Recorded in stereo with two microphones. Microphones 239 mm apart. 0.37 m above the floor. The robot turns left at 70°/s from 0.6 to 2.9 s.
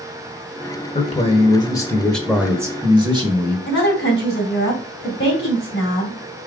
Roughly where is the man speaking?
Left.